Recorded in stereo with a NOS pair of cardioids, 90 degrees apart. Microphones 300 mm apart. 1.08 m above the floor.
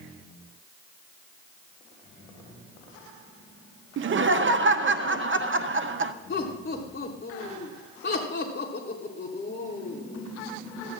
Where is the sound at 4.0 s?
45° right, 0.9 m.